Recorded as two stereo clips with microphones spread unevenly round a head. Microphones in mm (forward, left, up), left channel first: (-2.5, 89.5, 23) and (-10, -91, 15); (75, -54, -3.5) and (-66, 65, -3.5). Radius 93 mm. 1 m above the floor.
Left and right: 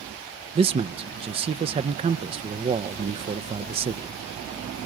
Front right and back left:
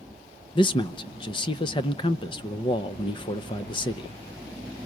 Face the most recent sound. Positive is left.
turn(degrees=-80)